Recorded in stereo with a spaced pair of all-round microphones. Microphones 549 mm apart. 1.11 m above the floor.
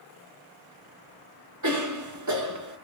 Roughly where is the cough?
Right.